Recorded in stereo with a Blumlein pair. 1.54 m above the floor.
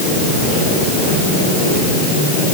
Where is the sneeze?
No sneeze in this recording.